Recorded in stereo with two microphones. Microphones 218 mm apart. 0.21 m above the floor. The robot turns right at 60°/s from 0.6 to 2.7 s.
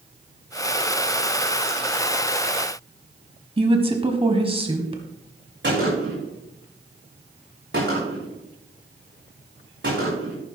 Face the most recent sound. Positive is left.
turn(degrees=-60)  # may be behind; listen again after turning